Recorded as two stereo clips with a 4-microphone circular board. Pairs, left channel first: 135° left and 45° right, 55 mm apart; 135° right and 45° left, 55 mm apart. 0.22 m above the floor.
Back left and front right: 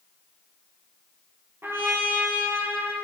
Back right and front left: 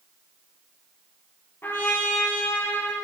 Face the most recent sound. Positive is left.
turn(degrees=-90)